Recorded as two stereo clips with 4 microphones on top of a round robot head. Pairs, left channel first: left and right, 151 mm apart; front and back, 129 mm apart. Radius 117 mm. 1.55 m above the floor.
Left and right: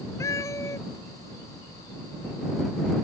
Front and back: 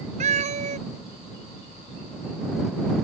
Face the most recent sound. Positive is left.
turn(degrees=165)